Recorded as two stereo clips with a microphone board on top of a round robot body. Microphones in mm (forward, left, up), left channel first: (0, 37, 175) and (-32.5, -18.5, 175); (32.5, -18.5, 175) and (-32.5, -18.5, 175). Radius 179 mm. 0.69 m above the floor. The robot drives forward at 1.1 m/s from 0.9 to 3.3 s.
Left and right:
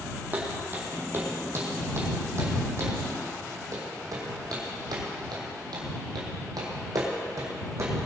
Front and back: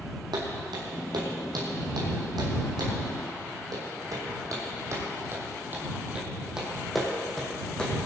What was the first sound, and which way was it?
Footsteps, 175° left.